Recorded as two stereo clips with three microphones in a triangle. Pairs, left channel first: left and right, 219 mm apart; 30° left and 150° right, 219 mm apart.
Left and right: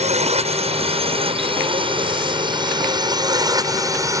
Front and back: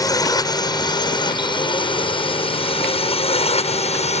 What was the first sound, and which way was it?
A drone, 40° right.